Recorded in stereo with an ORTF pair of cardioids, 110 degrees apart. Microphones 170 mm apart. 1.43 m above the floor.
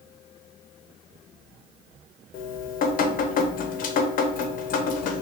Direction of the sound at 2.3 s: 55° left.